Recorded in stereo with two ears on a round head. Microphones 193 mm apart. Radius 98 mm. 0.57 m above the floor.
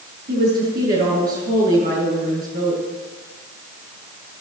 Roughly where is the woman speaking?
Right.